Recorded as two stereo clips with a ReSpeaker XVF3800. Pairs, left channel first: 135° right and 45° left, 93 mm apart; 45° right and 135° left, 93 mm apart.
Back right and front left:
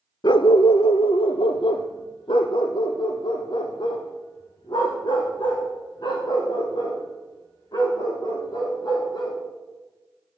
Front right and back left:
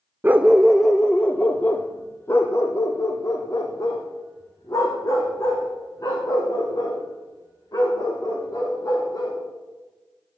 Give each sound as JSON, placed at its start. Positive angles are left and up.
{"t": 0.2, "sound": "a dog barking", "azimuth_deg": -160, "distance_m": 0.5}